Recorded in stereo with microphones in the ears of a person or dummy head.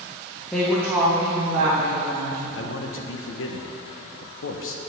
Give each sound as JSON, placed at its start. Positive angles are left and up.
{"t": 0.5, "sound": "a woman speaking", "side_deg": 10, "distance_m": 0.8}
{"t": 2.5, "sound": "a man speaking", "side_deg": 70, "distance_m": 0.8}